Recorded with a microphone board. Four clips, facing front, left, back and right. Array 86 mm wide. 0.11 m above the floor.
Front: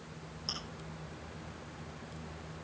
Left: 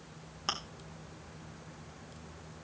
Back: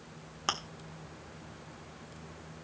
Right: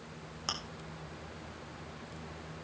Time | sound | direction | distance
0.5 | chewing | 170° left | 1.7 m